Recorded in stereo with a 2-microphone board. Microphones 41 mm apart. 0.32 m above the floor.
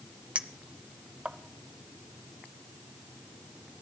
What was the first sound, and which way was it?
A clink, 30° right (ahead or behind).